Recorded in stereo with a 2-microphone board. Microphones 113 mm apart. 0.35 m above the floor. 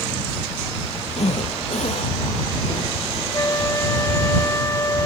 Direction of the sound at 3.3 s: 25° left (ahead or behind).